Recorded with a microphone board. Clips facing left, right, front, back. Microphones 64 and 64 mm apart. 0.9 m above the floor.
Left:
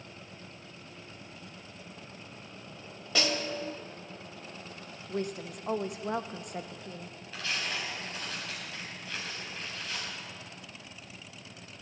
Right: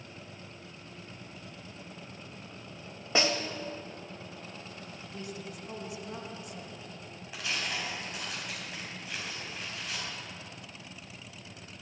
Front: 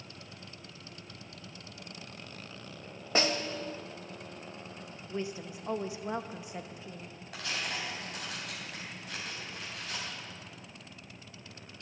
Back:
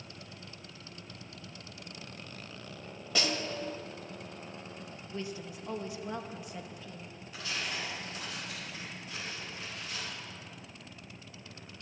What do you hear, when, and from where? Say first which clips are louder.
3.1 s a snare drum: right 2 dB, front 3 dB; 35° right, 0.9 m
5.1 s a woman speaking: left 8 dB, front 3 dB; 70° left, 0.7 m
7.3 s tearing paper: even, front 1 dB; 15° right, 4.5 m